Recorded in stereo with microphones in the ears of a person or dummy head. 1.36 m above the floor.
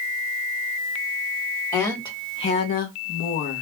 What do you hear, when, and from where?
1.7 s a woman speaking: 20° left (ahead or behind), 1.1 m; by 3.6 s 70° left (ahead or behind), 0.8 m